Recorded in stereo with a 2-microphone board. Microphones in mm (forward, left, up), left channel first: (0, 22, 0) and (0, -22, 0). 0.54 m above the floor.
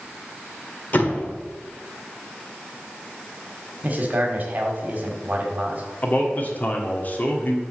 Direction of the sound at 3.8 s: 40° right (ahead or behind).